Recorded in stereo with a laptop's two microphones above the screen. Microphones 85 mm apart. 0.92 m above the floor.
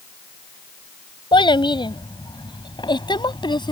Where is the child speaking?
70° left (ahead or behind); by 3.7 s 60° left (ahead or behind).